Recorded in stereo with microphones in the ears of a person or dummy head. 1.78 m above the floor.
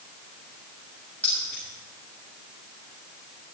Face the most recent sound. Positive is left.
turn(degrees=10)  # may be behind; listen again after turning